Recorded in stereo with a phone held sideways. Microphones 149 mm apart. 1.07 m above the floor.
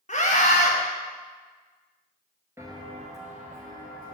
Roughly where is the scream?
Left.